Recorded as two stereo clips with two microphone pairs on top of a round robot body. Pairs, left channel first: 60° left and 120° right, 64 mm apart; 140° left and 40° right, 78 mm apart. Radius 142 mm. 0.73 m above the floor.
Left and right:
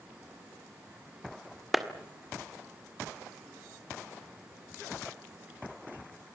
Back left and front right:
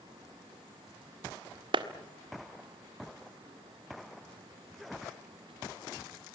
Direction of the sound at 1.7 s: 35° right.